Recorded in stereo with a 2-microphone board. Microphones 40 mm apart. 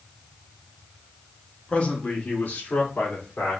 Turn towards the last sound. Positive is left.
turn(degrees=60)  # may be behind; listen again after turning